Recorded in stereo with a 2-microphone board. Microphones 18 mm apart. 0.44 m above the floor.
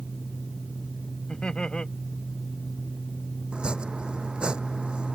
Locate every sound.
1.3 s laughter: 60° left (ahead or behind)
3.5 s chopping: 70° right (ahead or behind)